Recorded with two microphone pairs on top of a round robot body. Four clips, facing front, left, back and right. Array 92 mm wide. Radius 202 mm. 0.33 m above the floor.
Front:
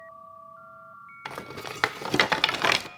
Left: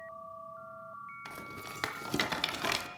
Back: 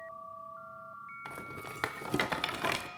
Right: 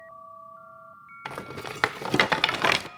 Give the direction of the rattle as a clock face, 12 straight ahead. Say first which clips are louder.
Right 8 dB, front 9 dB; 2 o'clock.